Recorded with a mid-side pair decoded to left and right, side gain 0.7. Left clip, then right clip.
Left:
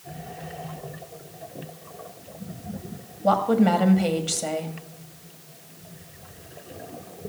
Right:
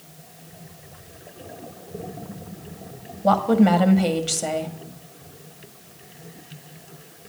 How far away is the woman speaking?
About 1.4 m.